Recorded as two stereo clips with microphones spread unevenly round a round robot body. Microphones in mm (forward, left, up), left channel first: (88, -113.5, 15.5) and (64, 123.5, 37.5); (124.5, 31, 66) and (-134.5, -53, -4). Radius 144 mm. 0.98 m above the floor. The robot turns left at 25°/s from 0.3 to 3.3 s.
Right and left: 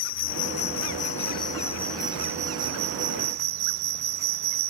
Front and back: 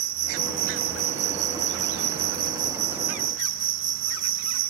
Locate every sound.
0.0 s an insect: 130° right; by 4.7 s 155° left